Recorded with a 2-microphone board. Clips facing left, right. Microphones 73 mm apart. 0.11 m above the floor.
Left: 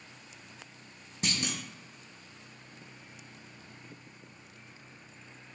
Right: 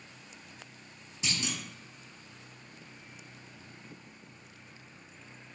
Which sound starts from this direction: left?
A clunk, at 1.2 s.